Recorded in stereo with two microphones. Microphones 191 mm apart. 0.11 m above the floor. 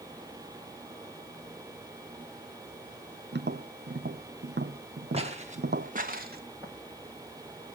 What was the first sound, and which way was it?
Tapping, 60° right (ahead or behind).